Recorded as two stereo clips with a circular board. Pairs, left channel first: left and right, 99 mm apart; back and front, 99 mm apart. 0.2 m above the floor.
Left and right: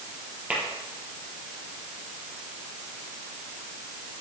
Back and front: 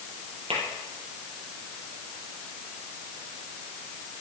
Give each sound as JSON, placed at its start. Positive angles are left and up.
{"t": 0.5, "sound": "tapping", "azimuth_deg": -15, "distance_m": 6.0}